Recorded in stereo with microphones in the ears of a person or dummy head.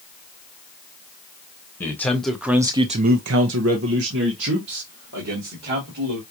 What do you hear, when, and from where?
1.8 s a man speaking: 10° left (ahead or behind), 1.4 m; by 6.2 s 55° right (ahead or behind), 3 m